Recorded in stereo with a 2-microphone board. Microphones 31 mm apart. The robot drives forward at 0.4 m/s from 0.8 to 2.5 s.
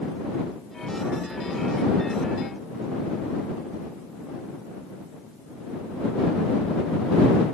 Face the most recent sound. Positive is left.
No sound to turn to.